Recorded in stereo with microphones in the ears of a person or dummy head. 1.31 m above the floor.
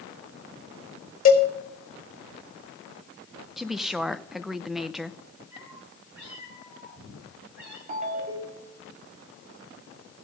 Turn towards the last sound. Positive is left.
turn(degrees=-45)  # may be behind; listen again after turning